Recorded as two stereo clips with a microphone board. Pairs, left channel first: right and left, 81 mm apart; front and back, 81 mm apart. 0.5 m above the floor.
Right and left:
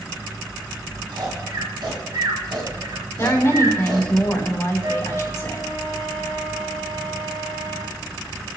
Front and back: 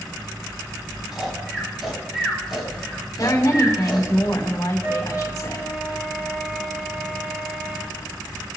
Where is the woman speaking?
40° right, 3.5 m.